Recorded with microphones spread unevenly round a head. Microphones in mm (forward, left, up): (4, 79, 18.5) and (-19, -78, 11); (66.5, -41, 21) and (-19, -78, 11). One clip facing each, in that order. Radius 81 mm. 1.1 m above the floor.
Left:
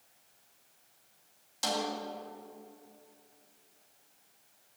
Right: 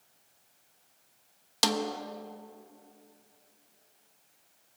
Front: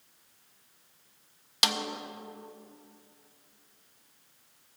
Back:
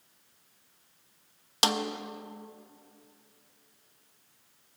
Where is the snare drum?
100° right, 1.0 m.